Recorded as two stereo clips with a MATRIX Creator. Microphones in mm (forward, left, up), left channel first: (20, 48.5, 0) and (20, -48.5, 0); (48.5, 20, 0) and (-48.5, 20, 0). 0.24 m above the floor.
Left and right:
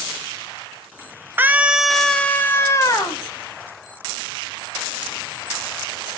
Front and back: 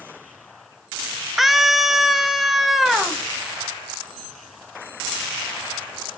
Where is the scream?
95° right, 1.0 m; by 3.2 s 95° left, 1.3 m.